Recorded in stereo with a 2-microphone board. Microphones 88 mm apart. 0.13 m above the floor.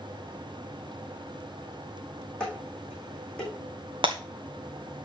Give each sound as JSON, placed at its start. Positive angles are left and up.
{"t": 2.4, "sound": "dishes clattering", "side_deg": 10, "distance_m": 5.0}
{"t": 4.0, "sound": "breaking glass", "side_deg": -75, "distance_m": 1.7}